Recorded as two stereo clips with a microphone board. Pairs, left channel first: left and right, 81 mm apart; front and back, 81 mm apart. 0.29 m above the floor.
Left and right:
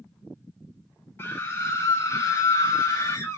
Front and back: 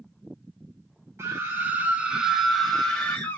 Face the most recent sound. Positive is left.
turn(degrees=65)